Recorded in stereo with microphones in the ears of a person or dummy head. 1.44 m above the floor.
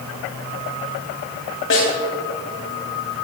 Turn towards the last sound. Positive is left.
turn(degrees=60)  # may be behind; listen again after turning